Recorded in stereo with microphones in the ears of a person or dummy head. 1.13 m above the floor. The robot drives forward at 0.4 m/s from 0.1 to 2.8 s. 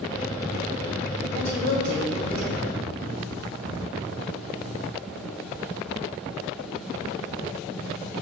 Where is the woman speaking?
45° left (ahead or behind), 4 m; by 2.7 s 40° left (ahead or behind), 4 m.